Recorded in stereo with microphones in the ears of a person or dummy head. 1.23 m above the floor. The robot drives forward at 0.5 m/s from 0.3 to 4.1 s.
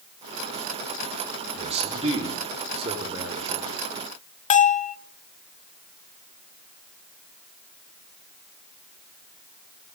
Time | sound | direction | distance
1.6 | a man speaking | 35° right (ahead or behind) | 4.5 m
4.5 | a bell | 40° left (ahead or behind) | 0.7 m